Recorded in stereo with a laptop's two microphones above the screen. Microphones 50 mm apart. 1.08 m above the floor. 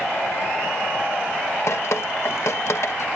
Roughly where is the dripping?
Left.